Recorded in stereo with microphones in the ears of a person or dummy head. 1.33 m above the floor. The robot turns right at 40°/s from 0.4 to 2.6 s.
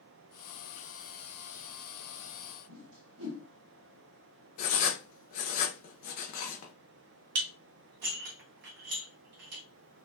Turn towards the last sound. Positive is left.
turn(degrees=-60)  # may be behind; listen again after turning